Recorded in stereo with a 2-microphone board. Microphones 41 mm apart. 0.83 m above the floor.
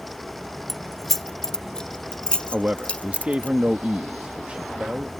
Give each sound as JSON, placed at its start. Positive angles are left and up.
{"t": 0.7, "sound": "keys jangling", "side_deg": 0}
{"t": 2.5, "sound": "a man speaking", "side_deg": -30}